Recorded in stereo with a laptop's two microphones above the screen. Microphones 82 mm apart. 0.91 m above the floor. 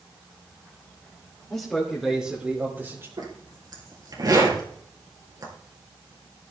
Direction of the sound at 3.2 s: 50° right (ahead or behind).